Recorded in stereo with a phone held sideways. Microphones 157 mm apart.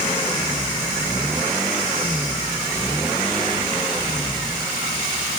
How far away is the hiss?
No hiss in this recording.